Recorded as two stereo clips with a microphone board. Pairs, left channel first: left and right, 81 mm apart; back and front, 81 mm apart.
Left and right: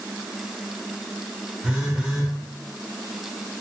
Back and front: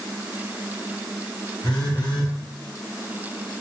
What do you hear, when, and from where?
1.6 s a phone buzzing: 170° right, 0.8 m